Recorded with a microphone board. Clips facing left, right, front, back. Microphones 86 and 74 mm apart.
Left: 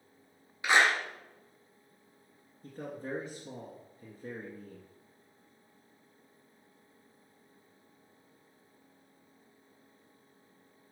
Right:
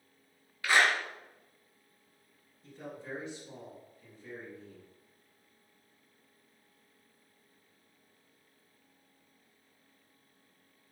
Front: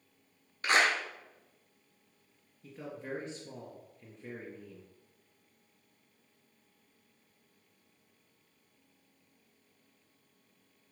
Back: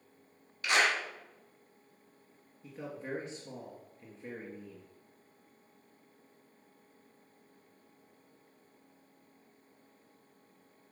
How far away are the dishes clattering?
No dishes clattering in this recording.